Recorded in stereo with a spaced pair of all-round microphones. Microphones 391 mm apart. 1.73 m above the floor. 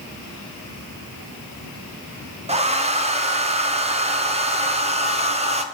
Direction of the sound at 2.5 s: 15° right (ahead or behind).